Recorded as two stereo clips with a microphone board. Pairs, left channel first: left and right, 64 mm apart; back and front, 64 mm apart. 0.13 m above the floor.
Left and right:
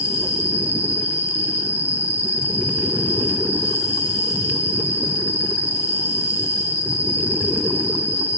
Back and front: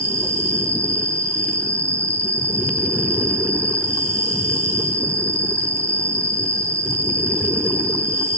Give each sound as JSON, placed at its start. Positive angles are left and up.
{"t": 0.0, "sound": "an insect", "azimuth_deg": -30, "distance_m": 1.9}